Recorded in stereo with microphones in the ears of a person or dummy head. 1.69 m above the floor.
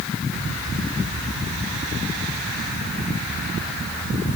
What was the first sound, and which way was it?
Only background noise.